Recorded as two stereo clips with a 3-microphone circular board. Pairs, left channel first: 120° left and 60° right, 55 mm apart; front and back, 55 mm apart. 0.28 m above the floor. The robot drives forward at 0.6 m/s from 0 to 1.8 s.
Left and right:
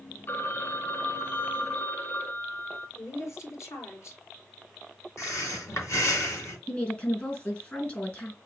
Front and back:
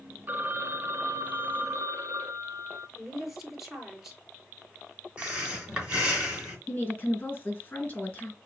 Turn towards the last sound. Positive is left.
turn(degrees=60)